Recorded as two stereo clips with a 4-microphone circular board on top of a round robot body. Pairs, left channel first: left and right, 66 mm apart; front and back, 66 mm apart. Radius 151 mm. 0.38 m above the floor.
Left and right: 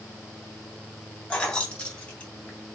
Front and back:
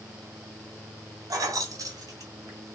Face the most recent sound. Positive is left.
turn(degrees=155)